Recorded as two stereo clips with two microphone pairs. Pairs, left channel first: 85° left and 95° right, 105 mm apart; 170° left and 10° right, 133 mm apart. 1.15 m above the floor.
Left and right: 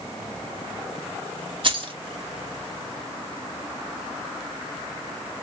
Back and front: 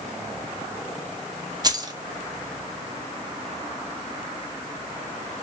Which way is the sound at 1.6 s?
60° right.